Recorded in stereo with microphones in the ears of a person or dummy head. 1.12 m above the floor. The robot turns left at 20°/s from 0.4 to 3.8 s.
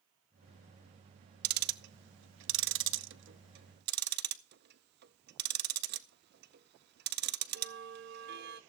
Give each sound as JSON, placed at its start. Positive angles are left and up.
{"t": 1.4, "sound": "ticking", "side_deg": -55, "distance_m": 0.6}